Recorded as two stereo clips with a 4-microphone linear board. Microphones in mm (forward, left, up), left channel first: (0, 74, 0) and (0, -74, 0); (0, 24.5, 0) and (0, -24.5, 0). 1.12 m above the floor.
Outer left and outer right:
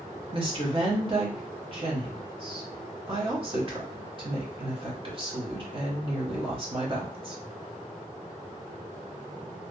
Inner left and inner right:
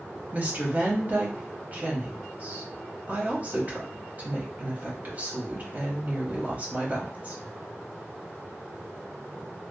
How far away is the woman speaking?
About 0.9 m.